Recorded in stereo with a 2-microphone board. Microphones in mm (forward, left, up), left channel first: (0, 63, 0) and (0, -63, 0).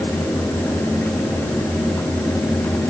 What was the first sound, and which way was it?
Only background noise.